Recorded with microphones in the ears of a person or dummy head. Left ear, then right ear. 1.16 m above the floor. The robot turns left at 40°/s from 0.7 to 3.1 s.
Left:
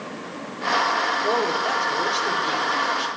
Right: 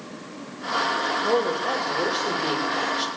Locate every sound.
1.2 s a woman speaking: 55° left, 4 m; by 3.1 s 20° right, 4 m